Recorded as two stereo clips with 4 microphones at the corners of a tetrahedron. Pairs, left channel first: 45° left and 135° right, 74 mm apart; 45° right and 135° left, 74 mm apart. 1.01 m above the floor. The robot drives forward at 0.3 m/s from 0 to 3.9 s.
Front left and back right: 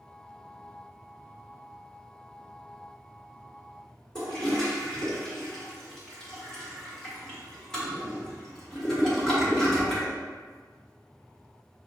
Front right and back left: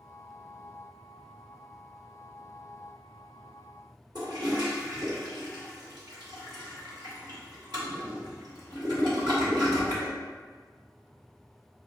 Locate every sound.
4.2 s a toilet flushing: 125° left, 1.6 m